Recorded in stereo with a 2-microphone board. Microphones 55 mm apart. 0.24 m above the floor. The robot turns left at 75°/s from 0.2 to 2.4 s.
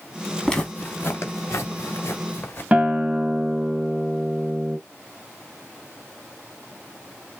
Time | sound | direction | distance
0.5 | footsteps | 5° left (ahead or behind) | 2.5 m
2.7 | a guitar | 25° right (ahead or behind) | 0.9 m